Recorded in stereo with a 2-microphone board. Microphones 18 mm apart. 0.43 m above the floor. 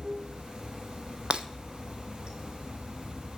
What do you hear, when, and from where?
0.0 s running water: 55° right (ahead or behind), 4 m
1.3 s breaking glass: 55° right (ahead or behind), 0.7 m